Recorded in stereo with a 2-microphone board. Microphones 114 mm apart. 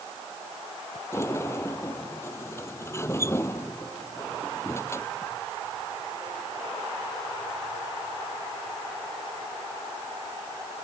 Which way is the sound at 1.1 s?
25° left (ahead or behind).